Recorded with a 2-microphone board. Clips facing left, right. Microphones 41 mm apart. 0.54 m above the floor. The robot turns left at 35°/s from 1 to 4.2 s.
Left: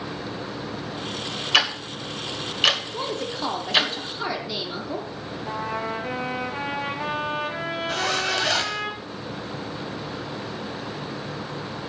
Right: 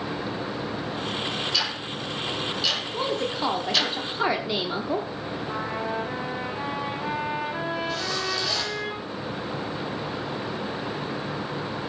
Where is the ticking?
60° left (ahead or behind), 2.0 m; by 3.9 s 25° left (ahead or behind), 2.0 m.